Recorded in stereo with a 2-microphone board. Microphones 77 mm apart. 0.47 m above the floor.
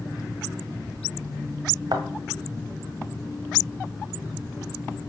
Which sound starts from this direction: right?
A thud, at 1.9 s.